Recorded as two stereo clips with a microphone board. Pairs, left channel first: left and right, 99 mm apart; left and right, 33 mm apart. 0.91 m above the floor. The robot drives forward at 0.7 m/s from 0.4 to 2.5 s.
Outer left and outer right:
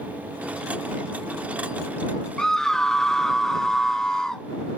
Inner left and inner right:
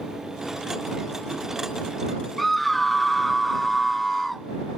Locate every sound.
2.4 s a scream: 5° left (ahead or behind), 0.8 m